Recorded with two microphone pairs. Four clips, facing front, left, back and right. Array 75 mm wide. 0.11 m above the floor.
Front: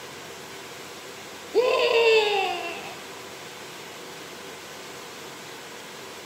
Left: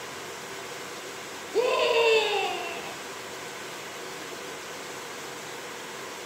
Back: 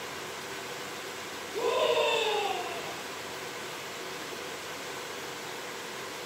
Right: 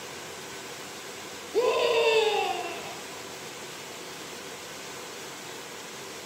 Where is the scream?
10° left, 1.7 m.